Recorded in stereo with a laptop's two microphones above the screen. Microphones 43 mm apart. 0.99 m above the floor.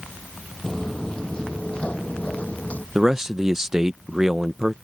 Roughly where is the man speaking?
Centre.